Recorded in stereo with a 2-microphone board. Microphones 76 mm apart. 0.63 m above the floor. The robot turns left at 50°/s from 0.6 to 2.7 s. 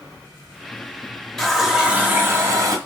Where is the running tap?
10° left, 0.7 m; by 2.8 s 60° right, 0.7 m.